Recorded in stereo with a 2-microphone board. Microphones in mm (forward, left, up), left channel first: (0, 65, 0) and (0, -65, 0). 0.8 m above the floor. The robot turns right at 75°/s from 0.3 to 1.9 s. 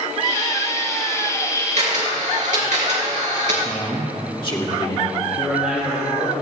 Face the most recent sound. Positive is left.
turn(degrees=-5)  # may be behind; listen again after turning